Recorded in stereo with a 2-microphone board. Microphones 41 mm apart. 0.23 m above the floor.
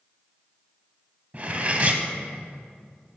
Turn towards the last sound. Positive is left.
turn(degrees=-35)  # may be behind; listen again after turning